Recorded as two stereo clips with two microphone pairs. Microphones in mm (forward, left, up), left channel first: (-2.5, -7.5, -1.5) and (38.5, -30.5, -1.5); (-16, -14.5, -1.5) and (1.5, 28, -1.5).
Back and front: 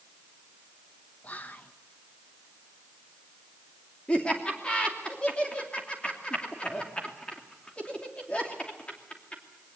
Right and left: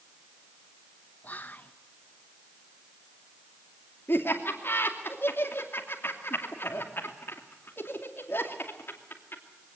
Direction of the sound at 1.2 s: 155° right.